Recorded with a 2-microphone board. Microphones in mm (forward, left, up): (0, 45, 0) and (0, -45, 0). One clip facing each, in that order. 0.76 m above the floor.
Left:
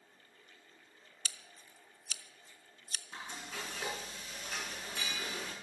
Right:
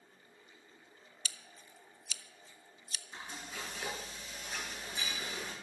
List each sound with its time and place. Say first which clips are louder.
1.2 s scissors: even; 45° left (ahead or behind), 0.7 m
3.1 s frying: left 1 dB; 85° left, 7 m